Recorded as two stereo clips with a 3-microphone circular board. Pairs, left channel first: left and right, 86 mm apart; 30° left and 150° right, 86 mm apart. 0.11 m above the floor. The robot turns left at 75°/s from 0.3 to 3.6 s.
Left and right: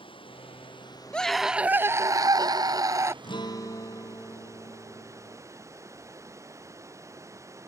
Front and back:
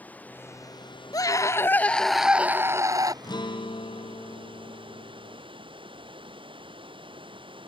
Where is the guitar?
70° left; by 5.4 s 45° left.